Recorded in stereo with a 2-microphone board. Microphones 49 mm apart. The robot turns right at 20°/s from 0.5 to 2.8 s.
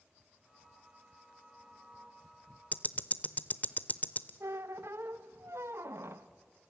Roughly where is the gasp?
I don't hear a gasp.